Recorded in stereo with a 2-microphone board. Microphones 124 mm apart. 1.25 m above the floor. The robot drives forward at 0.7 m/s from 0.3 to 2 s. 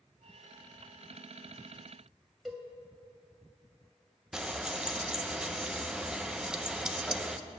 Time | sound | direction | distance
2.5 | a cowbell | centre (ahead or behind) | 1.5 m
4.3 | frying | 5° right (ahead or behind) | 0.5 m